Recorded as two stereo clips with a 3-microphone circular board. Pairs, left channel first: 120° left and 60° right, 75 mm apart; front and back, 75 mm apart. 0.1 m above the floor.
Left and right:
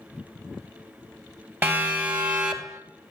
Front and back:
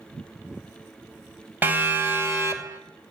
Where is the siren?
120° right, 2 m; by 2.8 s 145° right, 2.5 m.